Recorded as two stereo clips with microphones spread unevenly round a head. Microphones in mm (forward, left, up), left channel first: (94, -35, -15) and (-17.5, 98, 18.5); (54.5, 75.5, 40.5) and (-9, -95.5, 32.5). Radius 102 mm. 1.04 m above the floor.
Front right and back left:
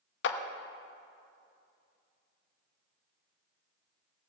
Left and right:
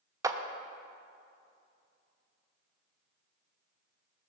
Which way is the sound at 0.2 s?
35° right.